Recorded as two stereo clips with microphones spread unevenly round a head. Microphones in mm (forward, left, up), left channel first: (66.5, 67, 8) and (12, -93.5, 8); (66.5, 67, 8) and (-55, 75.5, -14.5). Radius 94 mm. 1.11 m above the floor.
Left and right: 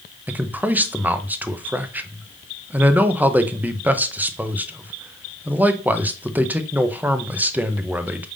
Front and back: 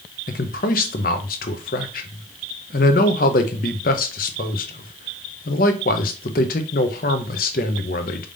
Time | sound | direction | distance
0.3 | a man speaking | 30° right | 0.7 m